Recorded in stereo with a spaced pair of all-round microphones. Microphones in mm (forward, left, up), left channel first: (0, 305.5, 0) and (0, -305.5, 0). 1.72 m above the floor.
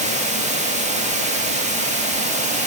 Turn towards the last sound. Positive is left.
turn(degrees=-10)  # may be behind; listen again after turning